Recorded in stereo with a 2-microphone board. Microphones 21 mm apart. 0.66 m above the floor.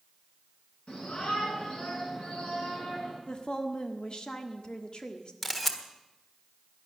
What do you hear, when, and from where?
0.9 s a shout: 85° left, 9 m
3.3 s a woman speaking: 50° left (ahead or behind), 1.5 m
5.4 s a camera shutter: 10° left (ahead or behind), 1.5 m